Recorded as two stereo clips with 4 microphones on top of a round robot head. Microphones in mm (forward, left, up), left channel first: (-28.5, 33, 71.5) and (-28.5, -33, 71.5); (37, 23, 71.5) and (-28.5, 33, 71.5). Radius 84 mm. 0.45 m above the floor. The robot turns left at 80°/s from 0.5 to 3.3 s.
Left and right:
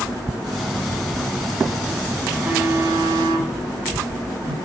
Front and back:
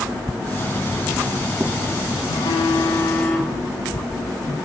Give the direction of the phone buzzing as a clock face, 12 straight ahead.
12 o'clock.